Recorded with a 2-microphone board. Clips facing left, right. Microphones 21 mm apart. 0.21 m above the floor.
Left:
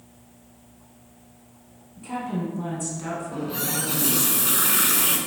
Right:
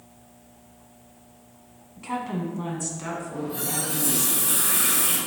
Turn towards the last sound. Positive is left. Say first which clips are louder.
# left 2 dB
turn(degrees=55)  # may be behind; listen again after turning